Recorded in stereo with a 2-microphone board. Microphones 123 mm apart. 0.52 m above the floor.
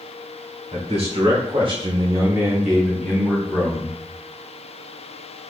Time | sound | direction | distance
0.7 | a man speaking | 60° right (ahead or behind) | 1.2 m